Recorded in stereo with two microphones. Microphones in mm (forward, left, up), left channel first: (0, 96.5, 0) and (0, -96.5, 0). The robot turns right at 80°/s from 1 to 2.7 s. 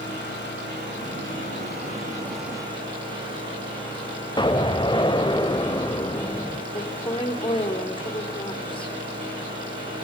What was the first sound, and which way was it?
An engine running, 70° left.